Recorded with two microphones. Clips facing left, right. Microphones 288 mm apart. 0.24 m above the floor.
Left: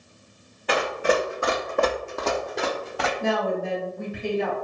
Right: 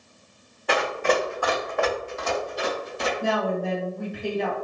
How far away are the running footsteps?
About 1.0 m.